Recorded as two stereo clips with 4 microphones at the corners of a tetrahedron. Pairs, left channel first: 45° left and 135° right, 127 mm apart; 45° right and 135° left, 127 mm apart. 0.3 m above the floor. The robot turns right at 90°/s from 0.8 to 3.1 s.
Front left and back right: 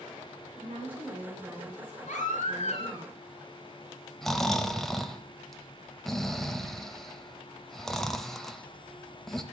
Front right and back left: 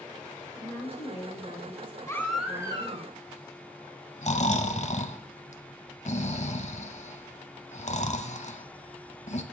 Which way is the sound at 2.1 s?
20° left.